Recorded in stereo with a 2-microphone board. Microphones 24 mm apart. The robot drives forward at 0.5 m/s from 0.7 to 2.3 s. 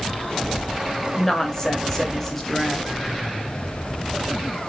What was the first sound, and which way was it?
A woman speaking, 20° left (ahead or behind).